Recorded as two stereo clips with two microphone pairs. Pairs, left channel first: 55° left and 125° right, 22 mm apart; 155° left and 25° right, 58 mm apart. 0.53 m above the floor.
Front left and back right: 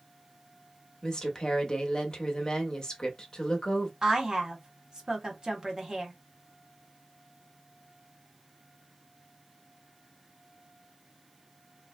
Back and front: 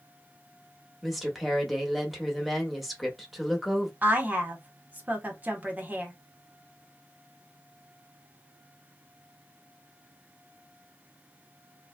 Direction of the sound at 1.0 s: 60° left.